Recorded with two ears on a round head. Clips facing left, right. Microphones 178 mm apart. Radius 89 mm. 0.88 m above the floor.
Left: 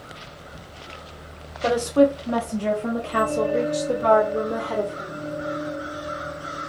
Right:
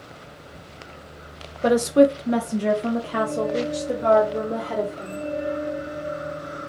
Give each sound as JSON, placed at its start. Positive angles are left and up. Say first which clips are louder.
{"t": 1.6, "sound": "a woman speaking", "louder": "right 2 dB", "side_deg": -25, "distance_m": 0.6}